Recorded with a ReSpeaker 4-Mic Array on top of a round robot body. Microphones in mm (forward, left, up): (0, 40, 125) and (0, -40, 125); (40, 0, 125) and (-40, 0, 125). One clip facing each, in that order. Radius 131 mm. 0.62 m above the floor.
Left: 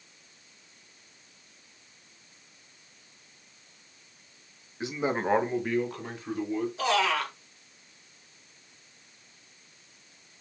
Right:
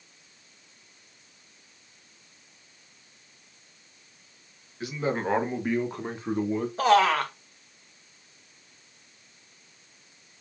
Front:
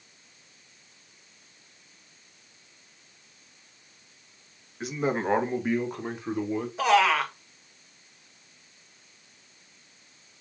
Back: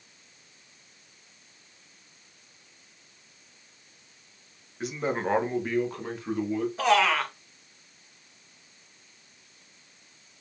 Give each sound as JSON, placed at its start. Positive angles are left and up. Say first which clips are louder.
{"t": 4.8, "sound": "a man speaking", "louder": "even, front 1 dB", "azimuth_deg": 90, "distance_m": 1.2}
{"t": 6.8, "sound": "a man speaking", "louder": "right 7 dB, front 2 dB", "azimuth_deg": -85, "distance_m": 1.5}